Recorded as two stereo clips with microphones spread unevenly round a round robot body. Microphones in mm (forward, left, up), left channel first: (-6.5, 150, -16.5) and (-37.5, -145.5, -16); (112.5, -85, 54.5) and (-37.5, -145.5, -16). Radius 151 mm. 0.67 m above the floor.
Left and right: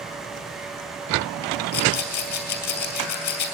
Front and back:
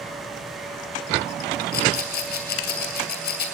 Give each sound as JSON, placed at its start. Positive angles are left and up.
{"t": 1.7, "sound": "a rattle", "azimuth_deg": 25, "distance_m": 2.5}